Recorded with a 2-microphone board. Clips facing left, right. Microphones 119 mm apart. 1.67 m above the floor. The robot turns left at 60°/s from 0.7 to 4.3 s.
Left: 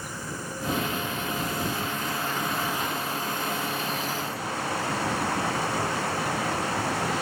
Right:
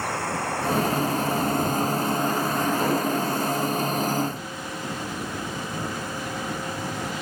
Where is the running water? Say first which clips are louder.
Right 9 dB; 70° right; by 7.2 s 75° left.